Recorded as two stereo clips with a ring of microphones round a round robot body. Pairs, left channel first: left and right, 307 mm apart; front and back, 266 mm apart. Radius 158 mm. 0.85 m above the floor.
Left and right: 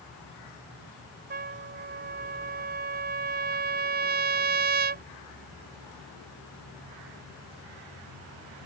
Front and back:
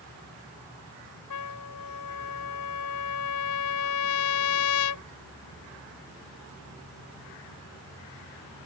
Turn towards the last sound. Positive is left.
turn(degrees=-30)